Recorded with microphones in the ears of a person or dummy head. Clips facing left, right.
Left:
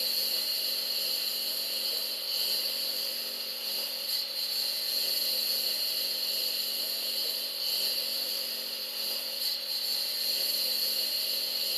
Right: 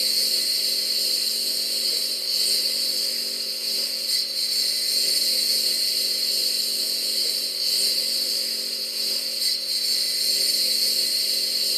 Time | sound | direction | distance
0.0 | a lawn mower | 35° right (ahead or behind) | ?